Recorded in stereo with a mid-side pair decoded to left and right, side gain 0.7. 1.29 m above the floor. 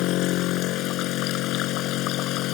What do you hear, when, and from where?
0.0 s a machine running: 60° left